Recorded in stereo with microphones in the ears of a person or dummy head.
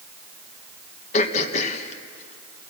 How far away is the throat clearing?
About 1.4 m.